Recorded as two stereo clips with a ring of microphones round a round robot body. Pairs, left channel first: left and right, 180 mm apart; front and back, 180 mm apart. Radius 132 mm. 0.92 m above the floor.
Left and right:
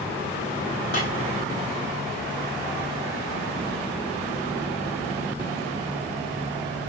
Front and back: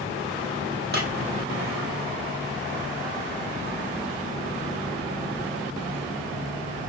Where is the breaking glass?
150° left, 3.5 m.